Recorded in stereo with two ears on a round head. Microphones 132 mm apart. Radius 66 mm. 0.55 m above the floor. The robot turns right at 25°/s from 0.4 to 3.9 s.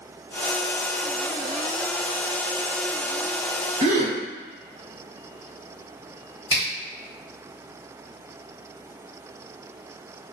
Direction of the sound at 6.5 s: 30° right (ahead or behind).